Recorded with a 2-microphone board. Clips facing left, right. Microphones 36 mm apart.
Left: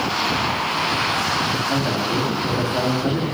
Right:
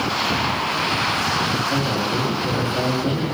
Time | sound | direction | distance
1.7 | a man speaking | 45° left (ahead or behind) | 3 m